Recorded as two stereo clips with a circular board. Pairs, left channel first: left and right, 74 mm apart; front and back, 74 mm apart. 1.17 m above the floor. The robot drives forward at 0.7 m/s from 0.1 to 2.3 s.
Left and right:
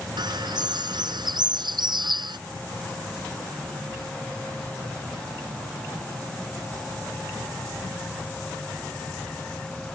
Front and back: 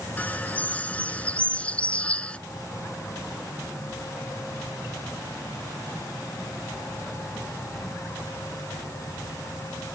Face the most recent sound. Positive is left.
turn(degrees=-75)